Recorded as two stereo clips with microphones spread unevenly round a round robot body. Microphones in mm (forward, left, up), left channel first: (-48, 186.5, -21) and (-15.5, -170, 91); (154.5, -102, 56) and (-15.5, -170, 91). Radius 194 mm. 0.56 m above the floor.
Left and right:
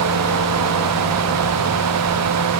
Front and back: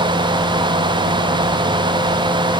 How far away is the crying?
No crying in this recording.